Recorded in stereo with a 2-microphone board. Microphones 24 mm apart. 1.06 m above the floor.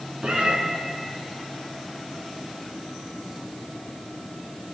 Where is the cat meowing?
50° right (ahead or behind), 2.5 m.